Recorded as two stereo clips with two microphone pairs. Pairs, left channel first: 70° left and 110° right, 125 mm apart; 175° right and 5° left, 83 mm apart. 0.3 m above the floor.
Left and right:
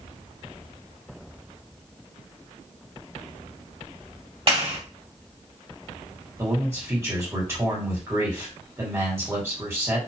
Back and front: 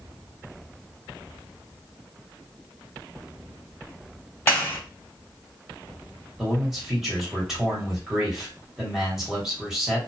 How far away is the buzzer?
No buzzer in this recording.